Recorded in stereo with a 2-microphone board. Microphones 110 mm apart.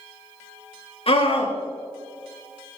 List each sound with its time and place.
1.1 s a scream: 60° left (ahead or behind), 3.5 m